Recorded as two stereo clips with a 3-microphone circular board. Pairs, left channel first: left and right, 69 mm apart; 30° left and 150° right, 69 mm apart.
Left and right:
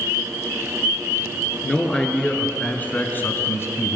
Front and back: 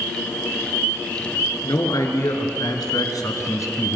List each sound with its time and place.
1.6 s a man speaking: 10° left, 4 m; by 4.0 s 60° left, 2.5 m